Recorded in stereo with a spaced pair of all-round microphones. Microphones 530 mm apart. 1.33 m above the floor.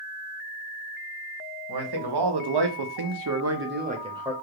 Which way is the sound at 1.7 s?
45° right (ahead or behind).